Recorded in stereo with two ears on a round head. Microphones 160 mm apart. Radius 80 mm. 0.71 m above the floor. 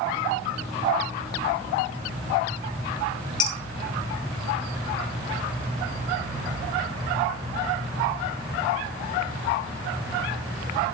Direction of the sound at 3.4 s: 50° left (ahead or behind).